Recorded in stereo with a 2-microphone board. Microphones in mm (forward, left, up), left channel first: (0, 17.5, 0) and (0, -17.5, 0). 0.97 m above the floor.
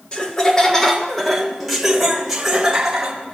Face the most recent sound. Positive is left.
turn(degrees=-15)  # may be behind; listen again after turning